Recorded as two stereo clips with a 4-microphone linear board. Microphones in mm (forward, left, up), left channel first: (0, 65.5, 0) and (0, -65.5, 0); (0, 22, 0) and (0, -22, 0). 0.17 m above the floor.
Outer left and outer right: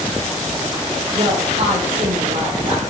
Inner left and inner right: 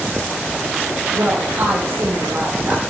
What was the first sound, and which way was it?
A woman speaking, 45° right (ahead or behind).